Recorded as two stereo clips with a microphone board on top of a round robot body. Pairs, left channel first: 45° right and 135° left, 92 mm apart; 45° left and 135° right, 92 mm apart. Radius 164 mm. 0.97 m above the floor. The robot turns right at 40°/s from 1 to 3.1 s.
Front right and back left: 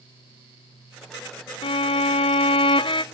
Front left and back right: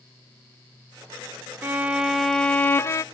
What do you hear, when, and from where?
1.6 s a violin: 65° right, 0.5 m; by 3.0 s 10° right, 0.5 m